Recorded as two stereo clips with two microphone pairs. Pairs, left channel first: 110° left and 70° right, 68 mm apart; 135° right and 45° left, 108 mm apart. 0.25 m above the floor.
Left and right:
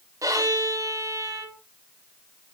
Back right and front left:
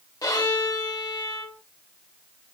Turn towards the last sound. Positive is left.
turn(degrees=-85)